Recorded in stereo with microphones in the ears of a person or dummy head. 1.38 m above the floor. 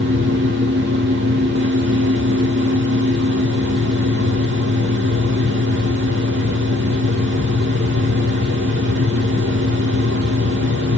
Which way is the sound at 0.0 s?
60° right (ahead or behind).